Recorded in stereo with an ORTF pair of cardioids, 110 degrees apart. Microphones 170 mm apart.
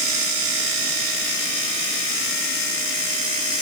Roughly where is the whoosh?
No whoosh in this recording.